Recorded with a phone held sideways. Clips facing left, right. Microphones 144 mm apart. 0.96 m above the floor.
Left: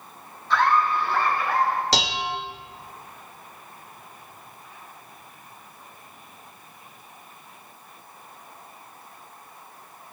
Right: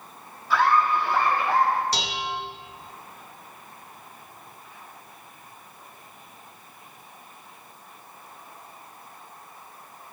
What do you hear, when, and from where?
0.5 s laughter: 5° right (ahead or behind), 2.5 m; by 1.8 s 30° right (ahead or behind), 3 m
1.9 s dishes clattering: 85° left, 0.8 m